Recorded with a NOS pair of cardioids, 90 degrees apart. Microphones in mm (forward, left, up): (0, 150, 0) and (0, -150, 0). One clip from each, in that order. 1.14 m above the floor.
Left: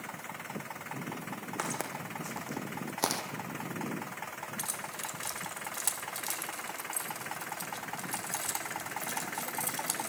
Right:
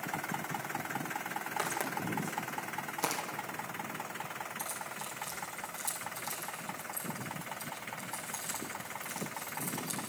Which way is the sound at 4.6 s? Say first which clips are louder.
Left 2 dB; 65° left.